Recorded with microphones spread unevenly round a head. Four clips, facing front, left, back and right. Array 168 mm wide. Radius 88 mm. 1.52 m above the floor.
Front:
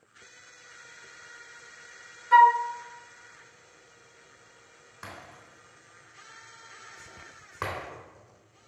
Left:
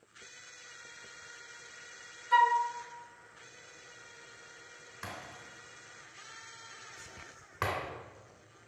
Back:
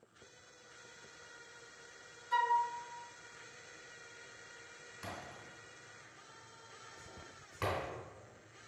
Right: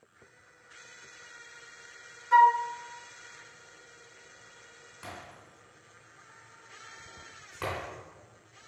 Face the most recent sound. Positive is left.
turn(degrees=15)